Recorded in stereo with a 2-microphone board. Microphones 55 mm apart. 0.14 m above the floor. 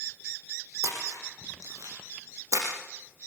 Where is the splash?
75° right (ahead or behind), 8 m.